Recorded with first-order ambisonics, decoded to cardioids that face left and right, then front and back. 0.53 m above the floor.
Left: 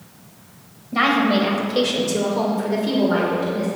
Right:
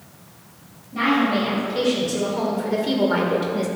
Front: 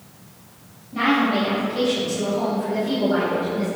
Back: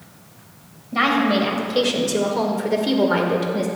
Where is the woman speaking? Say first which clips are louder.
Left 3 dB, back 2 dB; 135° left, 3 m; by 3.7 s 145° right, 2.0 m.